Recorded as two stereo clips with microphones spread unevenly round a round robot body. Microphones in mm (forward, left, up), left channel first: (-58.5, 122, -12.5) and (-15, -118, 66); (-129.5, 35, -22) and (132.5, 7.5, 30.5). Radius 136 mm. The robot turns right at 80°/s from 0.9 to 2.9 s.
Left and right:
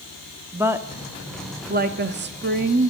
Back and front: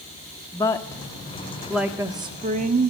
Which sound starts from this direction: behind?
A woman speaking, at 0.5 s.